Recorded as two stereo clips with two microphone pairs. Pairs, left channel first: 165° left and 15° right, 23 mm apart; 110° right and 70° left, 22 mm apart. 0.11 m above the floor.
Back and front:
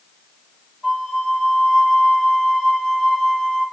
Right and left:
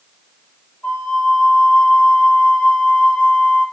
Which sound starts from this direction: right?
A flute, at 0.8 s.